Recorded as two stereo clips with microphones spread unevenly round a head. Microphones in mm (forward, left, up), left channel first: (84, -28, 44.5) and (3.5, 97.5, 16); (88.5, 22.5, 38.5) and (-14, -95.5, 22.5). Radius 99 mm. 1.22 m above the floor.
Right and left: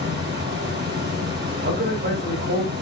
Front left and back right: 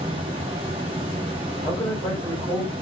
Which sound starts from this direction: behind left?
A man speaking, at 1.6 s.